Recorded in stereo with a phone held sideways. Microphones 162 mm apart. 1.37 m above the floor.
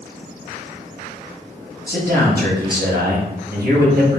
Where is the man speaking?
70° right (ahead or behind), 1.7 m.